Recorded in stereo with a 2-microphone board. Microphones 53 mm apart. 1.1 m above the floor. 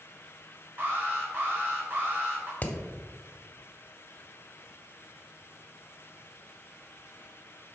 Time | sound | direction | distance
0.8 | an alarm | 40° right (ahead or behind) | 3.5 m
2.6 | hammering | 30° left (ahead or behind) | 1.5 m